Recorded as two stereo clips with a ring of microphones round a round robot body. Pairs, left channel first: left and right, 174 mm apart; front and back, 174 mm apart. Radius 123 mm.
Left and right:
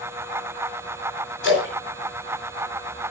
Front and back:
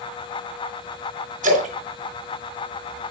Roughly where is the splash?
Behind left.